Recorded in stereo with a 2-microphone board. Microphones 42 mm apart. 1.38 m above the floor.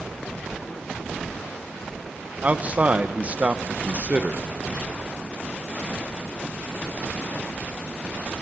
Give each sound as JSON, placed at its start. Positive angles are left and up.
{"t": 2.4, "sound": "a man speaking", "side_deg": -30, "distance_m": 1.4}